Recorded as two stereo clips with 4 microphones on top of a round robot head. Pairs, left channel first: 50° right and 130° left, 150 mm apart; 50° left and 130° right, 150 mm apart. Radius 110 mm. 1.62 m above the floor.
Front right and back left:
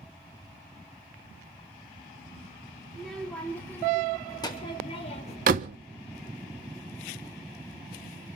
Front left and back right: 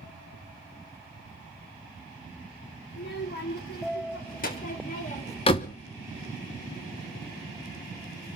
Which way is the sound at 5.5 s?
100° left.